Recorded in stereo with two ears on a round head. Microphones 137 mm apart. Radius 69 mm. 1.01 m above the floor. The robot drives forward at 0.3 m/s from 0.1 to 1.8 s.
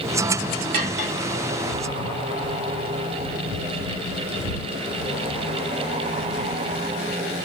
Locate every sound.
0.7 s cutlery clinking: 60° right (ahead or behind), 1.2 m; by 1.1 s 55° right (ahead or behind), 1.3 m